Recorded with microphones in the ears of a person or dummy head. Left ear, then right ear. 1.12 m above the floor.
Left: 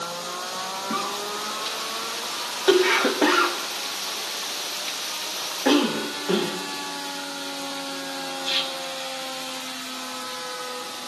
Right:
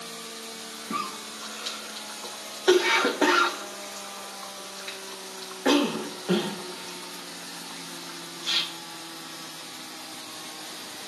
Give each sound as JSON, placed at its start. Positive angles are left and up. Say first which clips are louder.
{"t": 0.9, "sound": "a cough", "louder": "left 2 dB", "side_deg": 0, "distance_m": 1.0}